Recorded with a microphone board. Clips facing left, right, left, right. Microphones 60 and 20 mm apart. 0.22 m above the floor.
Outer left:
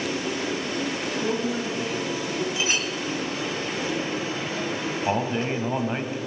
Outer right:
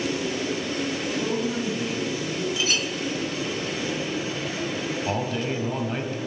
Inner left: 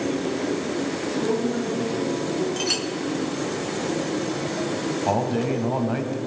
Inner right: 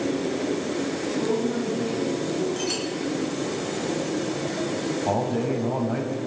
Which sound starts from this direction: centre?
A woman speaking, at 1.0 s.